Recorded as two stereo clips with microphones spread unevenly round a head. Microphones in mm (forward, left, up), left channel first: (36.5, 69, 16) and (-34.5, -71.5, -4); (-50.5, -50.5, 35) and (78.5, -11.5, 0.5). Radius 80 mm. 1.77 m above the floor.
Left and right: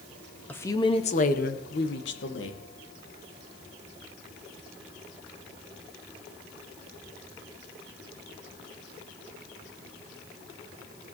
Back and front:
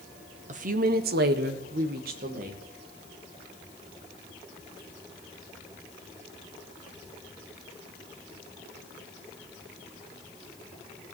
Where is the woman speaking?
15° right, 1.3 m; by 2.6 s 55° left, 2.5 m.